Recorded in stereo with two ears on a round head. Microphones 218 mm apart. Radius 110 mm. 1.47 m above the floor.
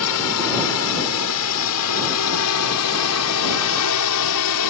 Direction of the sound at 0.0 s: 65° left (ahead or behind).